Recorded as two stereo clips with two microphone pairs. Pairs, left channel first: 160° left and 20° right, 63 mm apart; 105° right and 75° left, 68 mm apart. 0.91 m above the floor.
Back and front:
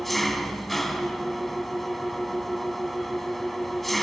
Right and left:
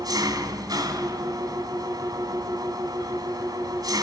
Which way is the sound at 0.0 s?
75° left.